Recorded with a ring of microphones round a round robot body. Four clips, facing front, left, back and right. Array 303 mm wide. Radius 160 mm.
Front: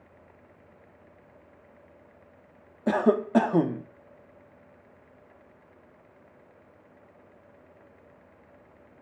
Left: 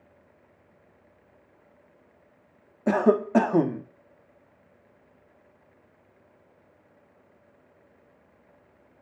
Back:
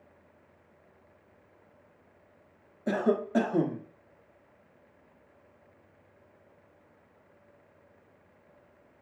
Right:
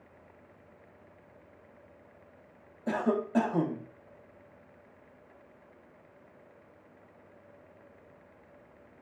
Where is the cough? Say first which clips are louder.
Left 8 dB, front 4 dB; 55° left, 1.1 m.